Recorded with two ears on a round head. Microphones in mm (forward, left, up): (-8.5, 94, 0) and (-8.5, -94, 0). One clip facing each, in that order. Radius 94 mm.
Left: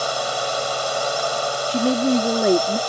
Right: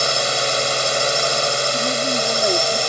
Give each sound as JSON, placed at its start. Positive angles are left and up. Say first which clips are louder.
{"t": 0.0, "sound": "a drone", "louder": "right 2 dB", "side_deg": -30}
{"t": 1.7, "sound": "a woman speaking", "louder": "left 4 dB", "side_deg": 45}